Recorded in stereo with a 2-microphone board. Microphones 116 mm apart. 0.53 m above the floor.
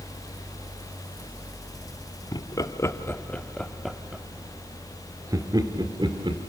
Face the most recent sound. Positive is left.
turn(degrees=-45)  # may be behind; listen again after turning